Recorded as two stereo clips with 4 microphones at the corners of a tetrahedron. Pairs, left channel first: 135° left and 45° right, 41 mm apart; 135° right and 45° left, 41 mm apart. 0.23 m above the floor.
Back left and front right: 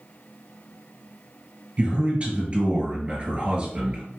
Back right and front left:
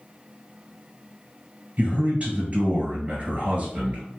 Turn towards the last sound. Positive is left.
turn(degrees=0)